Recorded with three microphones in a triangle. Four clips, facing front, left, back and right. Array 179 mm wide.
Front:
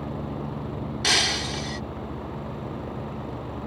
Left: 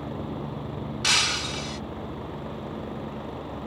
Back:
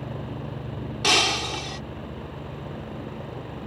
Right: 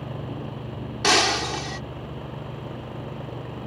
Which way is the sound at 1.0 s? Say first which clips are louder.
Right 10 dB, back 4 dB; 110° right.